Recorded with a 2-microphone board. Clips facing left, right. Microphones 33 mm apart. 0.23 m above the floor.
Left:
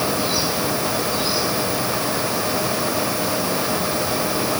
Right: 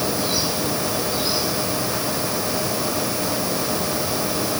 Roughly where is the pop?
I don't hear a pop.